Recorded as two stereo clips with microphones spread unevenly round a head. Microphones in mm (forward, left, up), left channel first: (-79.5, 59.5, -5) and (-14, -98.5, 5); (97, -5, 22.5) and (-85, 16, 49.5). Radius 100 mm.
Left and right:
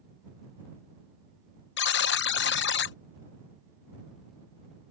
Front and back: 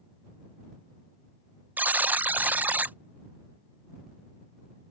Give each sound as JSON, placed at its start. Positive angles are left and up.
{"t": 1.8, "sound": "a buzzer", "azimuth_deg": 90}